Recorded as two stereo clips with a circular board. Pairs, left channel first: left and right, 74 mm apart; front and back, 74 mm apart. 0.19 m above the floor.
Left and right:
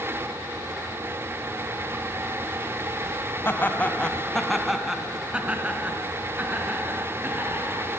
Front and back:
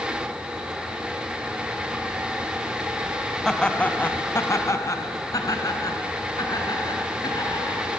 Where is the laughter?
80° left, 1.6 m; by 7.8 s 30° right, 5 m.